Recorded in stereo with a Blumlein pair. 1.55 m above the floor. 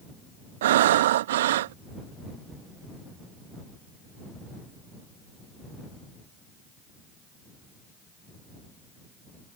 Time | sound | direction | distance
0.6 | breathing | 55° right | ?